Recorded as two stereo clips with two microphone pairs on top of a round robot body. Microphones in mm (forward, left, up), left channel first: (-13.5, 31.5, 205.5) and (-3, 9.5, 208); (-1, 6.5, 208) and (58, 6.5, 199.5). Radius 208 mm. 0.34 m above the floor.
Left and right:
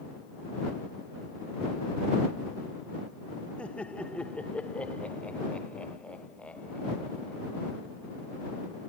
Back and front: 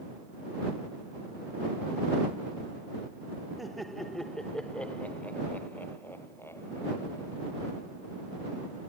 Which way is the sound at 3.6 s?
90° left.